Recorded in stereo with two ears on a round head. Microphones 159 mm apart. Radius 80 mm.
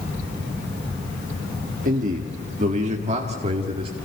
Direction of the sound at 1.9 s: 45° right (ahead or behind).